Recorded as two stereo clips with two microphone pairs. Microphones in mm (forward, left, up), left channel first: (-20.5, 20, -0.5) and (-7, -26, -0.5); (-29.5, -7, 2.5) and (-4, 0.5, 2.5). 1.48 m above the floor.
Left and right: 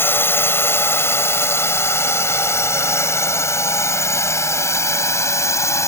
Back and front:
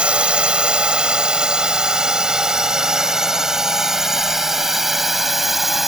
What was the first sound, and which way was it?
A drone, 70° left.